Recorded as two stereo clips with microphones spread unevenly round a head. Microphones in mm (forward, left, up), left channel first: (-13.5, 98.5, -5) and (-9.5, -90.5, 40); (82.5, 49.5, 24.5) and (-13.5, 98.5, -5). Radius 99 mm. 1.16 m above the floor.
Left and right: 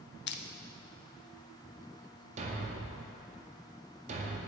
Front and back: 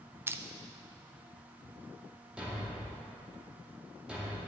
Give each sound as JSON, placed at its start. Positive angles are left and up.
{"t": 0.3, "sound": "crushing", "azimuth_deg": 90, "distance_m": 0.6}
{"t": 2.4, "sound": "a thud", "azimuth_deg": -110, "distance_m": 0.8}